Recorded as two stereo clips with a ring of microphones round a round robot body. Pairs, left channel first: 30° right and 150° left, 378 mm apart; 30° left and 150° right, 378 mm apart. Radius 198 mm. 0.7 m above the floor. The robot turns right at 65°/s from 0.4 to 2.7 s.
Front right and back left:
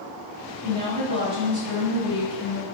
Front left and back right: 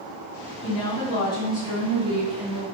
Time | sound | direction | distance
0.6 | a woman speaking | 60° left | 1.9 m